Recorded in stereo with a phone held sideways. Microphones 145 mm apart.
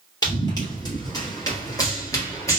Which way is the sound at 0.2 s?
25° left (ahead or behind).